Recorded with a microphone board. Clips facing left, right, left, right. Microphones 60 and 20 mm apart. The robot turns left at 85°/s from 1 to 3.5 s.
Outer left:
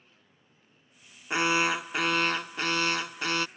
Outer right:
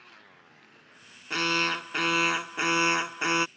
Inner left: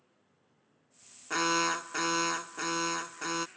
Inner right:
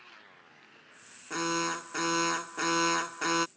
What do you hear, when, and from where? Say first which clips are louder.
0.0 s a motorcycle: outer right 11 dB, inner right 17 dB; 90° right; by 3.6 s 50° left (ahead or behind)
1.3 s an alarm: outer left 2 dB, inner left 3 dB; 20° left (ahead or behind); by 3.5 s 20° right (ahead or behind)